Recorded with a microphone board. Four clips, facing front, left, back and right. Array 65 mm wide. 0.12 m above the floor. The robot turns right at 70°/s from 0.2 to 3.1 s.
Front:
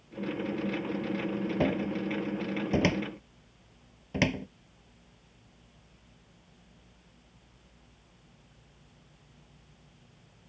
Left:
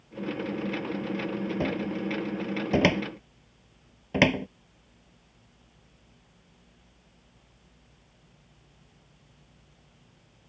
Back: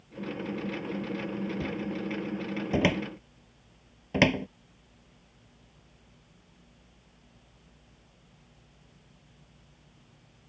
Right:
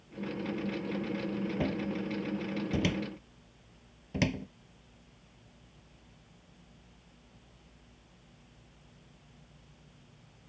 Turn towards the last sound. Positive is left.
turn(degrees=120)